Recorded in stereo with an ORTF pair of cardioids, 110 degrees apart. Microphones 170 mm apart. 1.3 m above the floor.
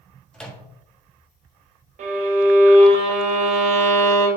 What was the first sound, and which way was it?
A microwave, 5° left.